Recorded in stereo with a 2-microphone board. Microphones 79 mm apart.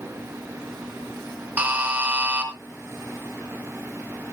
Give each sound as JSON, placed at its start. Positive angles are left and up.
{"t": 1.6, "sound": "a buzzer", "side_deg": -20, "distance_m": 3.0}